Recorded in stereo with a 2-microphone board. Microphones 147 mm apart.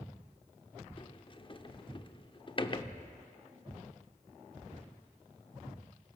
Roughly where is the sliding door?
Left.